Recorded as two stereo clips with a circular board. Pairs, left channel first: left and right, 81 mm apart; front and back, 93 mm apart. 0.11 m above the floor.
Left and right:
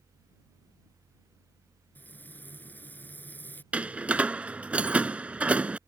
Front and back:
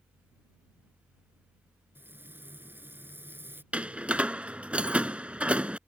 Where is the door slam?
130° right.